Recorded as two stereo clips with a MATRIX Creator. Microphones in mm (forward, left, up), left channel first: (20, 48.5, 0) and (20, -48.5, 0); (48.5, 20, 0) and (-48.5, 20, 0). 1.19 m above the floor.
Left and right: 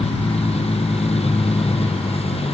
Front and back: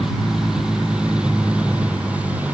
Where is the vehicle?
95° left; by 2.5 s 105° left.